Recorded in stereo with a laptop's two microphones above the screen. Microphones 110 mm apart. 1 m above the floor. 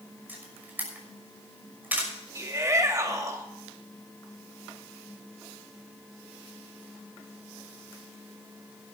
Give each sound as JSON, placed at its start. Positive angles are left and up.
{"t": 0.3, "sound": "a camera shutter", "side_deg": -15, "distance_m": 6.0}
{"t": 2.4, "sound": "a shout", "side_deg": -30, "distance_m": 2.0}